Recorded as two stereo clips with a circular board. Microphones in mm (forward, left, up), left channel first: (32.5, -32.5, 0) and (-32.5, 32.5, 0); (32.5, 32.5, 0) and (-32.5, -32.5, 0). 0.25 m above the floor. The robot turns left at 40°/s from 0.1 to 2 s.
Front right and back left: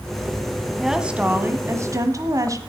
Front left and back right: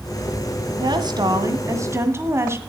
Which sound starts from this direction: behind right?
A woman speaking, at 0.8 s.